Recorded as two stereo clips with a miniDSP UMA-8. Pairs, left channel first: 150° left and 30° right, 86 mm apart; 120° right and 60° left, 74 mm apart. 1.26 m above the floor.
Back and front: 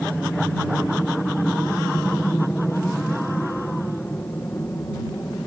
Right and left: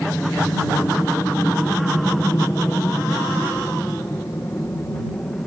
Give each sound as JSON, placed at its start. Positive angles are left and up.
{"t": 0.0, "sound": "an aircraft", "azimuth_deg": -135}